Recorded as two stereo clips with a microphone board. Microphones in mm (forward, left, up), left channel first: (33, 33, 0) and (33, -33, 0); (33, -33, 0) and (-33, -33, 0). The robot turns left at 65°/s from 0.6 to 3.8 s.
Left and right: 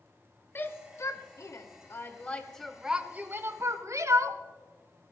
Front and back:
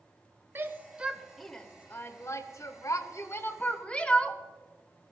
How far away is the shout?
About 1.2 m.